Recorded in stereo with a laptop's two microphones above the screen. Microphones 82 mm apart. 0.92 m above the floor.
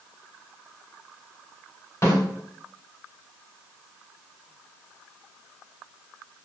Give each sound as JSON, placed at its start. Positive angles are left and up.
{"t": 2.0, "sound": "a snare drum", "side_deg": 40, "distance_m": 1.8}